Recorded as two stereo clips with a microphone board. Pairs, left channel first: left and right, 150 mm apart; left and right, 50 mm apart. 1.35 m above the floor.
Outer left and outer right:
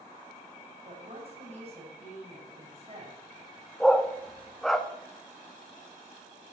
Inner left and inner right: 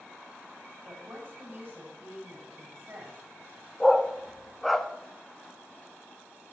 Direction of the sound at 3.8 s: Centre (ahead or behind).